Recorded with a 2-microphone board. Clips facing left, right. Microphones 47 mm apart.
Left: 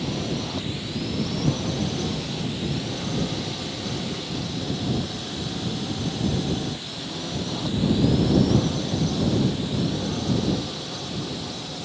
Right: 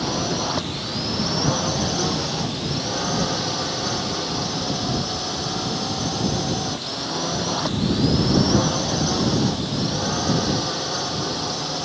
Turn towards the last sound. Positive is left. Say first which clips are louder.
# right 4 dB
turn(degrees=-80)